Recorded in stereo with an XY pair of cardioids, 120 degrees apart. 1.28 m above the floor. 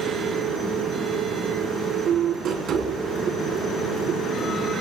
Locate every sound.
0.0 s a machine running: 60° right, 3.5 m